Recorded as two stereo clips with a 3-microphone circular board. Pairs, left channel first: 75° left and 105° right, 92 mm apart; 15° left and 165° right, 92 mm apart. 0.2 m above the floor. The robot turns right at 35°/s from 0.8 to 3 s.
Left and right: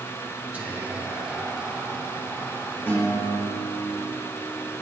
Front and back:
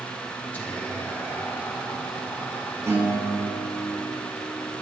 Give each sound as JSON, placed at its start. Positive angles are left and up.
{"t": 0.5, "sound": "whispering", "azimuth_deg": -45, "distance_m": 1.5}
{"t": 2.9, "sound": "a guitar", "azimuth_deg": 140, "distance_m": 3.5}